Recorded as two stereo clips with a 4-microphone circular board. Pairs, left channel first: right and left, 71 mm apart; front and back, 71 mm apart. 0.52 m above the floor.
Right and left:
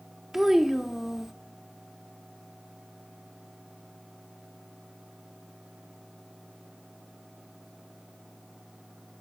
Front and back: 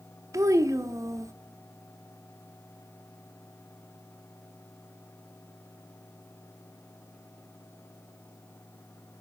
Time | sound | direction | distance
0.3 | a child speaking | 175° left | 0.9 m